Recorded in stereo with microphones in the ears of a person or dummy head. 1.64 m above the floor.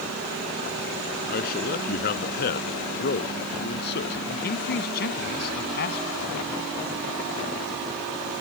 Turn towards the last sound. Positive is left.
turn(degrees=50)  # may be behind; listen again after turning